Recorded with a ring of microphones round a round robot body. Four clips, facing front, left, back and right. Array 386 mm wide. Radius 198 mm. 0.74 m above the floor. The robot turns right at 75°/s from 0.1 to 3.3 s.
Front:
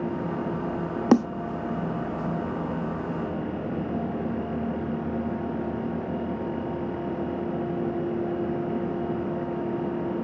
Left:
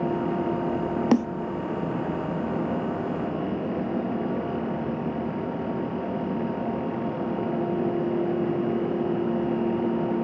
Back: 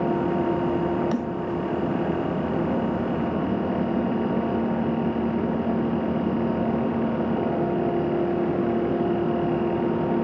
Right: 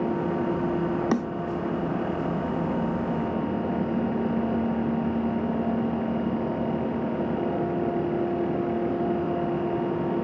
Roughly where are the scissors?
I don't hear scissors.